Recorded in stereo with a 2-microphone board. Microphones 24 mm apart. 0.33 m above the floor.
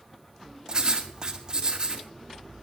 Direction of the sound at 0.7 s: 30° right (ahead or behind).